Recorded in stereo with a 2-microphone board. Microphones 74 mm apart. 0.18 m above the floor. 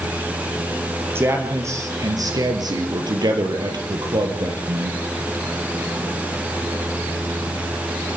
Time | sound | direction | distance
1.1 | a man speaking | 35° right (ahead or behind) | 4 m